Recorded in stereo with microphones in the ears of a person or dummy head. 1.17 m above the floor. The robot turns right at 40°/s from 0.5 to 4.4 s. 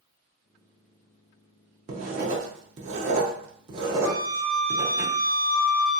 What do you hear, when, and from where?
1.9 s writing: 35° right (ahead or behind), 0.7 m; by 5.0 s 10° right (ahead or behind), 0.7 m
4.0 s a flute: 65° left (ahead or behind), 0.5 m; by 6.0 s 50° left (ahead or behind), 0.5 m